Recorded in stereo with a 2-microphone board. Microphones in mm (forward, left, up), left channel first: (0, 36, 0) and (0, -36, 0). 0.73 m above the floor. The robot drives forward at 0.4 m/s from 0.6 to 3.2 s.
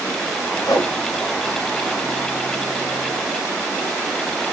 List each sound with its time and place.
0.7 s a whoosh: 65° left (ahead or behind), 1.4 m